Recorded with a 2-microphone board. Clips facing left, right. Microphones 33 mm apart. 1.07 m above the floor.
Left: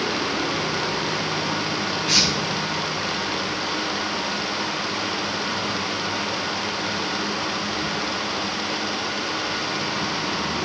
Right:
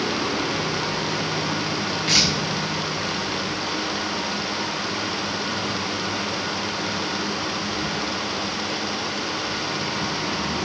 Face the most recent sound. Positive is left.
turn(degrees=-85)